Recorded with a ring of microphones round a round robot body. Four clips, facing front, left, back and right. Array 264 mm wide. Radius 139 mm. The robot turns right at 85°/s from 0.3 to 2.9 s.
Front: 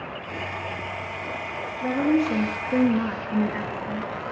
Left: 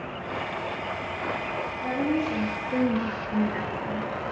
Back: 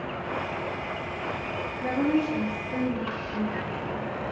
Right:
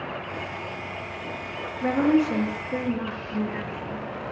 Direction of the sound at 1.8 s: 80° right.